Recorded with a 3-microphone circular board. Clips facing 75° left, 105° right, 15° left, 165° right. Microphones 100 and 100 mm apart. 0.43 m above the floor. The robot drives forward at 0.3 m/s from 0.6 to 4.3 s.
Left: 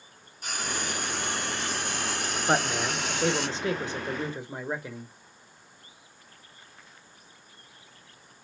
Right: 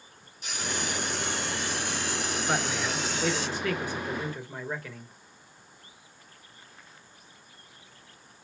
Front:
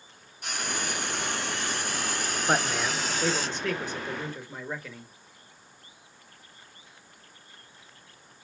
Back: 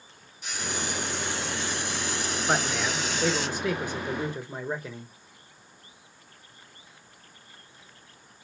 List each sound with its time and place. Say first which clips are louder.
0.4 s frying: even, even; 40° left, 2 m; by 3.5 s 60° left, 1.5 m
2.5 s a man speaking: left 5 dB, front 1 dB; 90° left, 0.9 m; by 5.1 s 135° left, 1.0 m